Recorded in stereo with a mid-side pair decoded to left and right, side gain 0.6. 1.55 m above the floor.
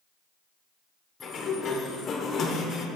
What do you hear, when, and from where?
1.2 s a sliding door: 35° left, 1.0 m